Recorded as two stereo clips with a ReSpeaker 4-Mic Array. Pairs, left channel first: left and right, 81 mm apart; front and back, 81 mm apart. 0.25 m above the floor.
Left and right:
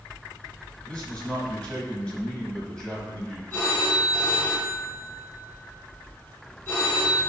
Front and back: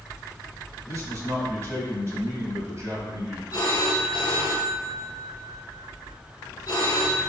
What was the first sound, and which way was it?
A man speaking, 165° left.